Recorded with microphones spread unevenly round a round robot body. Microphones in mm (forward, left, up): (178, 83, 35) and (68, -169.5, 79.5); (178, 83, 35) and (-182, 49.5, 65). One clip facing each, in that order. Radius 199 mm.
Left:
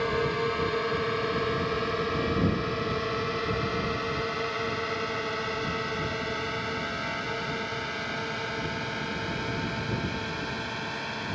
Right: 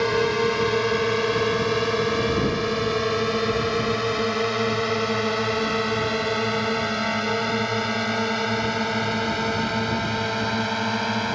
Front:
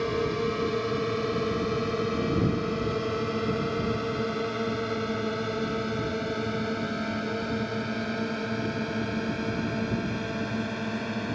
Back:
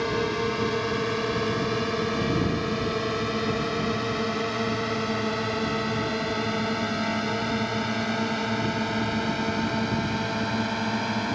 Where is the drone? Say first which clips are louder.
Right 6 dB, back 1 dB; 95° right; by 11.4 s 100° right.